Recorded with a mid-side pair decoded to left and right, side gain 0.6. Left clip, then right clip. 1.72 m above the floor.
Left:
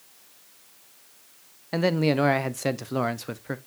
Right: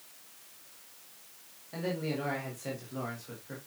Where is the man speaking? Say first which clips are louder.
Left 12 dB; 65° left, 1.0 m.